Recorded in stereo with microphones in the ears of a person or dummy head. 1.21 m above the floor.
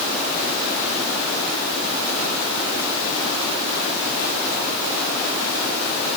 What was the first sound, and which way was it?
Only background noise.